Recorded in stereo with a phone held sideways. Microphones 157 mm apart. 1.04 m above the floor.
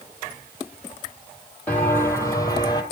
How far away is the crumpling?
I don't hear crumpling.